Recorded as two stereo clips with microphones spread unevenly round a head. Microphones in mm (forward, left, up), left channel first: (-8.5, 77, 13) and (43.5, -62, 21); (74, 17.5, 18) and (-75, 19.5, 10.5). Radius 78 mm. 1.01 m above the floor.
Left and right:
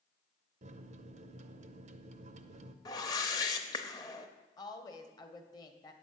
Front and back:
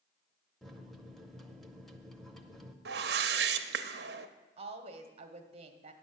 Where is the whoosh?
Straight behind, 0.6 m.